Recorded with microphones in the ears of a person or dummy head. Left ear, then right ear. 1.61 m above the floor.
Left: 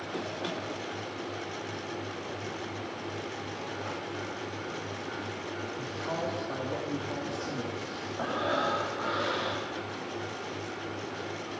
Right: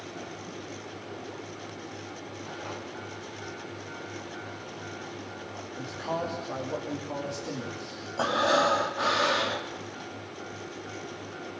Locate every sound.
5.8 s a man speaking: 15° right (ahead or behind), 3 m
8.2 s breathing: 70° right (ahead or behind), 3 m